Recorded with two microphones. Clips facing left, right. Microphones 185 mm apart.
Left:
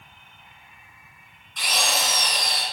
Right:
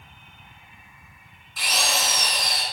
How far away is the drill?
About 3 m.